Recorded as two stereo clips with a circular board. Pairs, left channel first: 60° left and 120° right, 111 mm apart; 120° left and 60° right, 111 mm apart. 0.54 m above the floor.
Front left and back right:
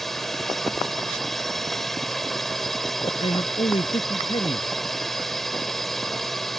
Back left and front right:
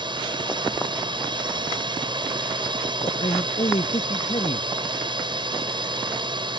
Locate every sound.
0.0 s a drone: 30° right
3.0 s a man speaking: 95° left